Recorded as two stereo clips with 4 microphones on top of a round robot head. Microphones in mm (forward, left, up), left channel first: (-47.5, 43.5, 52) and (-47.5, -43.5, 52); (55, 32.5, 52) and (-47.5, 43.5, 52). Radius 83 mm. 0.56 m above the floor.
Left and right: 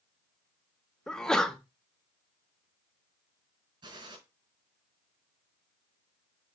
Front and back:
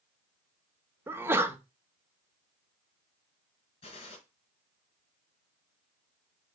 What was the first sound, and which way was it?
A sneeze, 160° left.